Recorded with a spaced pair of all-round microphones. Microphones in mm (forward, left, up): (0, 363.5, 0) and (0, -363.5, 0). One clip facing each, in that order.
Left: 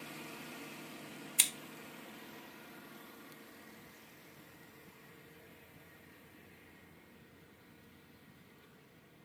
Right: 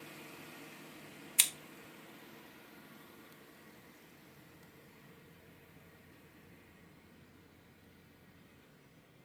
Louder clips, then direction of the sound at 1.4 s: Left 3 dB; 15° right (ahead or behind).